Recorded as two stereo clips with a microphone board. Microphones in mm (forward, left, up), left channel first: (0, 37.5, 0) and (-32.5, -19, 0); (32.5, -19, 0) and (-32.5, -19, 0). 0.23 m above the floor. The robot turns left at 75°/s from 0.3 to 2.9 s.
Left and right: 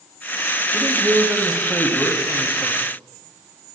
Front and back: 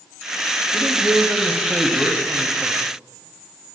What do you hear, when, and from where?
0.7 s a man speaking: 120° right, 1.0 m; by 2.8 s 90° left, 1.0 m